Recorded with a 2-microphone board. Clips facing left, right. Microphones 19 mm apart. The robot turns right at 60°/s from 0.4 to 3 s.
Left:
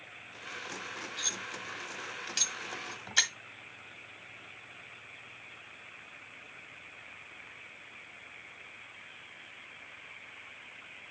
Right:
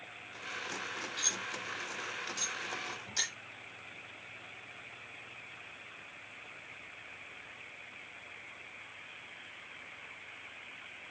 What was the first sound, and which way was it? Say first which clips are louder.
Cutlery clinking: even; 15° right (ahead or behind).